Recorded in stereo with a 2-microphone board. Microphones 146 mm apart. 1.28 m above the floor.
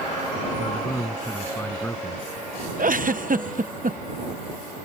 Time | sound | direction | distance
0.6 | a man speaking | 15° left (ahead or behind) | ?
2.8 | a giggle | 70° right (ahead or behind) | ?